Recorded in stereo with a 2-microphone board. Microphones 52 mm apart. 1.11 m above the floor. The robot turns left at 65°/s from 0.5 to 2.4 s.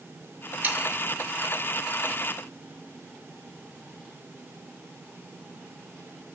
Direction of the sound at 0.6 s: 40° right (ahead or behind).